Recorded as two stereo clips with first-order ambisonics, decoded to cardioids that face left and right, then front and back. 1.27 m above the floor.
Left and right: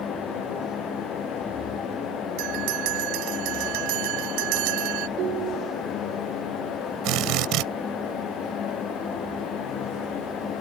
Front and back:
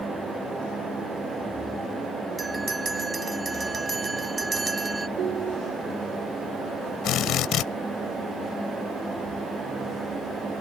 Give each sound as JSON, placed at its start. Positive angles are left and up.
{"t": 2.4, "sound": "a bell", "azimuth_deg": -105}
{"t": 5.2, "sound": "a ringtone", "azimuth_deg": -130}
{"t": 7.0, "sound": "a drill", "azimuth_deg": -50}